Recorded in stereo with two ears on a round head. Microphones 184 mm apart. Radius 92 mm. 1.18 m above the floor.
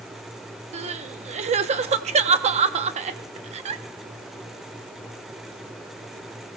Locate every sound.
0.7 s crying: 35° right (ahead or behind), 0.7 m